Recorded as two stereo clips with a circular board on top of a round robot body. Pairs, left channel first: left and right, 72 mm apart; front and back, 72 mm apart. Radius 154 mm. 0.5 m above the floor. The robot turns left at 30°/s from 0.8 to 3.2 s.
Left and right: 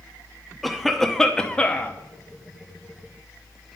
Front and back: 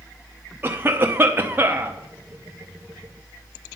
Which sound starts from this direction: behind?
A cough, at 0.6 s.